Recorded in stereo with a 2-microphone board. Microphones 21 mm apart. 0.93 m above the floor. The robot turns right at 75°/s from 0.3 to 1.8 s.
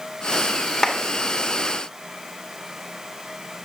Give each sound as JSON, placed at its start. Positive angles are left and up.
{"t": 0.8, "sound": "a clap", "side_deg": 25, "distance_m": 2.0}